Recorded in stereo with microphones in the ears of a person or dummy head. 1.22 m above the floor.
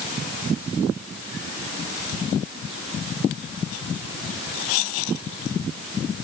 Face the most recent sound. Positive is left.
No sound to turn to.